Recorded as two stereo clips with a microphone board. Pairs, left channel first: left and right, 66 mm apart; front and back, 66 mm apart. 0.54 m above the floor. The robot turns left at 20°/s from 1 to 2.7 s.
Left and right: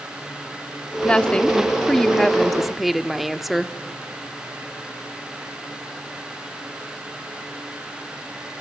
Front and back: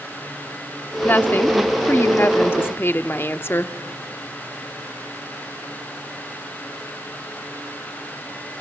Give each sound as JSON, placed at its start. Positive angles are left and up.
{"t": 1.0, "sound": "a woman speaking", "azimuth_deg": 30, "distance_m": 1.0}